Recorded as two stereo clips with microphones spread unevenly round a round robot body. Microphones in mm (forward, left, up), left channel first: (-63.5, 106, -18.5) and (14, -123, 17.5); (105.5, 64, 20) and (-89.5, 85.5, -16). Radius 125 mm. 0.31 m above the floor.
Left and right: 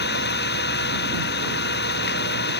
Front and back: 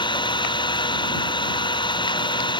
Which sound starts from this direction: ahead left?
An engine running, at 0.0 s.